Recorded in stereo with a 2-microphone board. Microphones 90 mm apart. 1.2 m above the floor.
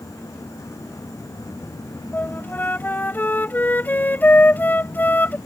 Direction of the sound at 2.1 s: 20° left (ahead or behind).